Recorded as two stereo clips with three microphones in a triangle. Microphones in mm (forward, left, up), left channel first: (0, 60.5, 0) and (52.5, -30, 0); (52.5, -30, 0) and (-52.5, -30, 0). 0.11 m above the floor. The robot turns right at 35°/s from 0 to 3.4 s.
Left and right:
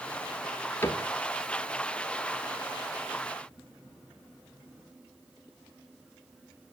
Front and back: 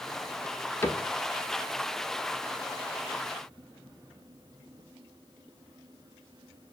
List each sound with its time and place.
0.8 s a cupboard door: 55° left, 0.9 m; by 1.1 s 70° left, 0.9 m